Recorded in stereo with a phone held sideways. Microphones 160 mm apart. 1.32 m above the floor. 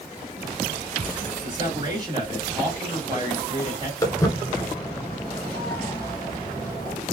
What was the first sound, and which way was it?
A man speaking, 25° right (ahead or behind).